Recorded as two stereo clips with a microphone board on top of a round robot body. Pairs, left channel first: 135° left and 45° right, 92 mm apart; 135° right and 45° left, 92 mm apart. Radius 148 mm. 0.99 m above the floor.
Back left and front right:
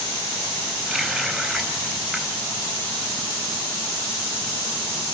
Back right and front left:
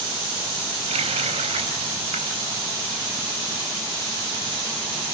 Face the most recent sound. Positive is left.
turn(degrees=50)